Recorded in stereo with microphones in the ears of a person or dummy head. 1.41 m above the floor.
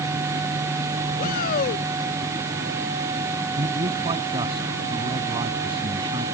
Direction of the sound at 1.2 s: 55° left (ahead or behind).